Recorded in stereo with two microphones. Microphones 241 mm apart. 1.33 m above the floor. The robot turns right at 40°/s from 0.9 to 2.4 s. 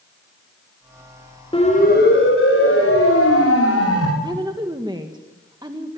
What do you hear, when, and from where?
1.5 s a siren: 20° left (ahead or behind), 7 m; by 4.1 s 80° left, 5.5 m
4.2 s a woman speaking: 20° right (ahead or behind), 1.7 m